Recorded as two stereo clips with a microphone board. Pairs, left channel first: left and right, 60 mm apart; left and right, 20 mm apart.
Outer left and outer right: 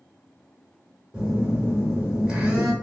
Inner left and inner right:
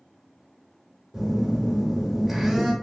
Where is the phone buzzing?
15° right (ahead or behind), 0.9 m.